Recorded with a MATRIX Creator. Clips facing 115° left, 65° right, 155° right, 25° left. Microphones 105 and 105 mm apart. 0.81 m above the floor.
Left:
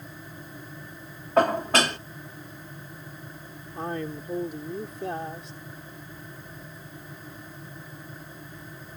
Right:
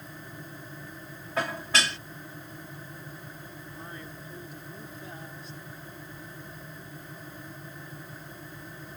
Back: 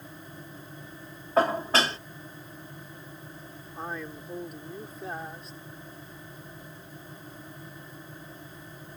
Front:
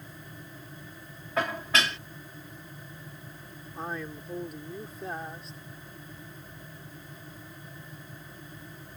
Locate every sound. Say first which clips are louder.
1.4 s dishes clattering: left 8 dB, back 5 dB; 150° left
3.8 s a man speaking: left 15 dB, front 1 dB; 115° left